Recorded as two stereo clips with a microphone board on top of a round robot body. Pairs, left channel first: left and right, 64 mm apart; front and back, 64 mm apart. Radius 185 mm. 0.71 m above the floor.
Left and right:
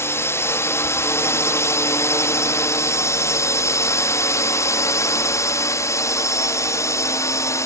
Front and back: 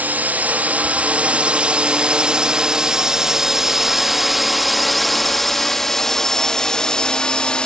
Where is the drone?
125° left; by 7.7 s 70° left.